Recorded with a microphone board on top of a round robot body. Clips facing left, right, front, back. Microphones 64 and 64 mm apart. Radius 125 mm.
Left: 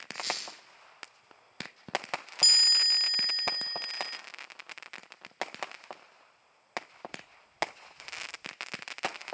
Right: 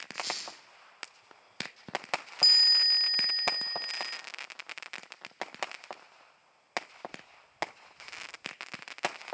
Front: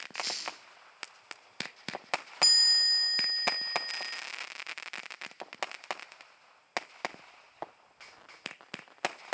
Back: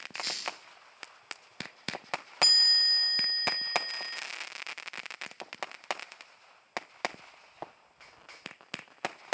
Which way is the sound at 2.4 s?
60° right.